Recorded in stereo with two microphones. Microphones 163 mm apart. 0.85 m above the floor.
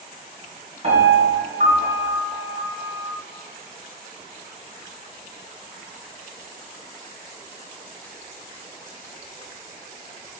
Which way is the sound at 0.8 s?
45° right (ahead or behind).